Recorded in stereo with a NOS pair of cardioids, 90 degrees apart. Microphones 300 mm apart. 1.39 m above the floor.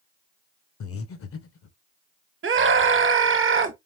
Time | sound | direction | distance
0.8 | breathing | 45° left | 1.0 m
2.4 | a scream | 40° right | 1.5 m